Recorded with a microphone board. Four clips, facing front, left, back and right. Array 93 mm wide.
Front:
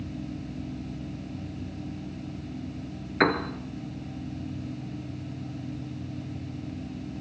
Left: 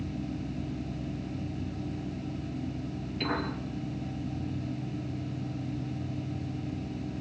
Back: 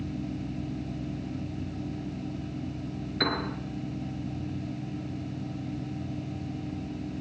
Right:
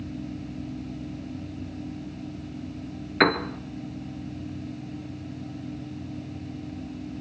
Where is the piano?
70° right, 3 m.